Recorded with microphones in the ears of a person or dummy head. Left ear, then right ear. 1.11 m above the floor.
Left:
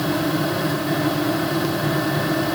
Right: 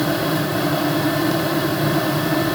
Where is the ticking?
No ticking in this recording.